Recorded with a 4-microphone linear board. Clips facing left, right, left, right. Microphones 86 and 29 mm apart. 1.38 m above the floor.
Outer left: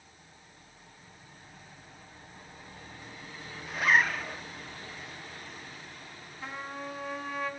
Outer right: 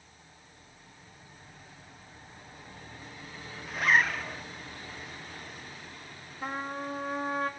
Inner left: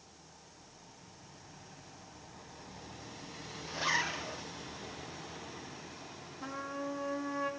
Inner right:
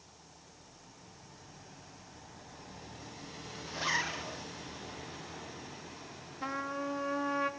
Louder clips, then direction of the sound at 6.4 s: Outer right 4 dB, inner right 3 dB; 45° right (ahead or behind).